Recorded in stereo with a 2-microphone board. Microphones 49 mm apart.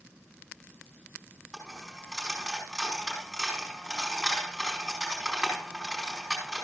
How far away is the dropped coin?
About 5 m.